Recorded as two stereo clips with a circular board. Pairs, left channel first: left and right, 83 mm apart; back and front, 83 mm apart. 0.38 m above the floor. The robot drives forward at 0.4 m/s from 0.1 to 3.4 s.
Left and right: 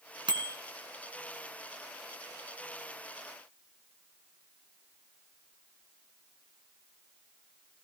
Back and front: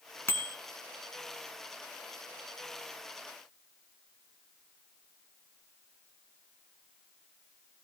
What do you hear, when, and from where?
0.3 s a bicycle bell: 120° right, 3 m